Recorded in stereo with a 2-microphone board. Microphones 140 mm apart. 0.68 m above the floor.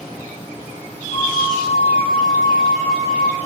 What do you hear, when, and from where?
1.1 s a flute: 50° right (ahead or behind), 3.5 m